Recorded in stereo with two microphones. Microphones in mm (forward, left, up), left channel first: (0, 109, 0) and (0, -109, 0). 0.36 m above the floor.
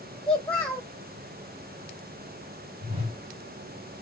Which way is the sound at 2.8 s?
25° right (ahead or behind).